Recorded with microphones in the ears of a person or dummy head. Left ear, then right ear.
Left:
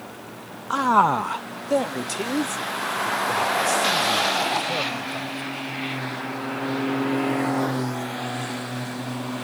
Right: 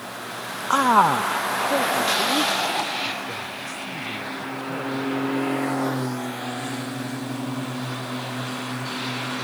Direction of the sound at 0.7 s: 25° right (ahead or behind).